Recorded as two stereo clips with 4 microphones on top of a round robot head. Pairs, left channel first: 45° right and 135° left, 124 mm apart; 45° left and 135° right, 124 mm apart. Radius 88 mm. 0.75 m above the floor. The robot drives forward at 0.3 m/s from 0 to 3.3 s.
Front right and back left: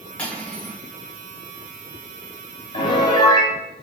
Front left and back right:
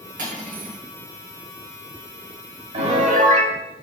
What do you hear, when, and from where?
0.2 s cutlery clinking: 125° right, 1.4 m; by 0.8 s 130° right, 1.5 m
2.7 s a piano: 95° right, 1.0 m; by 3.5 s 105° right, 1.0 m